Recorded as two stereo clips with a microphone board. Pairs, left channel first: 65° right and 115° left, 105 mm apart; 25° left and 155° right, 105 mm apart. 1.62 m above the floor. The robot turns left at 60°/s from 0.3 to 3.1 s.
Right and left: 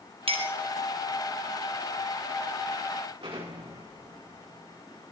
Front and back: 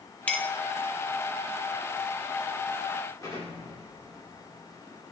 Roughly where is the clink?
Left.